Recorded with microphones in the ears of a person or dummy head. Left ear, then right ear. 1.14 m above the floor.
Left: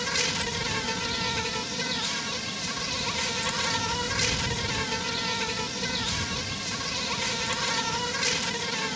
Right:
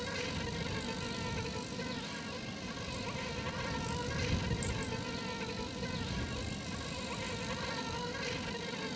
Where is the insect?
45° left (ahead or behind).